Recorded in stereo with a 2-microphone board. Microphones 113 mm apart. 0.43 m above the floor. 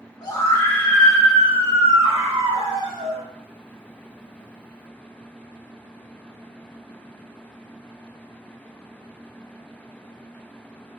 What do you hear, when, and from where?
0.2 s a scream: 35° left (ahead or behind), 1.0 m; by 3.2 s 55° right (ahead or behind), 1.7 m